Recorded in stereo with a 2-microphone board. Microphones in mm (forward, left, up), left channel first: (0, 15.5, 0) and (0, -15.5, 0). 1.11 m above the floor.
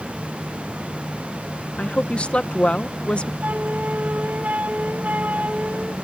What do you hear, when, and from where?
1.8 s a woman speaking: 40° left (ahead or behind)
3.4 s a flute: 70° right (ahead or behind)